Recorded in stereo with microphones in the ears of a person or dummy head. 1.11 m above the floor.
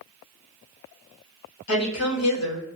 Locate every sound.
1.7 s a woman speaking: 70° left (ahead or behind), 1.6 m